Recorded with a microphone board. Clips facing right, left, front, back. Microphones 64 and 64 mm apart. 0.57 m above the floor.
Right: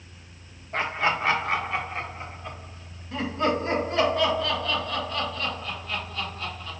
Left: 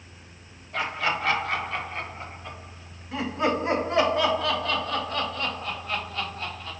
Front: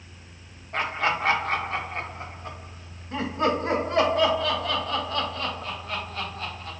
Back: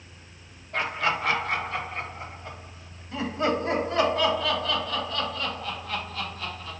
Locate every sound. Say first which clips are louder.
0.7 s laughter: right 2 dB, front 1 dB; 45° right, 1.3 m; by 6.7 s 40° left, 3 m